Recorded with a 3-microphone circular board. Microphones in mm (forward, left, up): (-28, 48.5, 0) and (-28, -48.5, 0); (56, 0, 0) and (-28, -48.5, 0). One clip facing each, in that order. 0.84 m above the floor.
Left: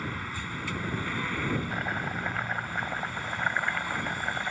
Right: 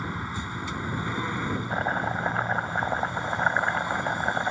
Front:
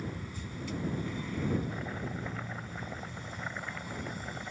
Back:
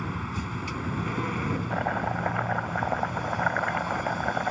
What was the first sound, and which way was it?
A vehicle, 160° right.